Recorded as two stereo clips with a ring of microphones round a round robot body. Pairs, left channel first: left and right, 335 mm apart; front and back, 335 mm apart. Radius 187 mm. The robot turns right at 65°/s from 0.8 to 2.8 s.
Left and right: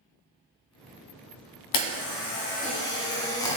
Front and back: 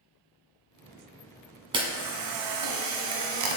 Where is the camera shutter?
100° left, 1.7 m; by 3.6 s 170° left, 1.7 m.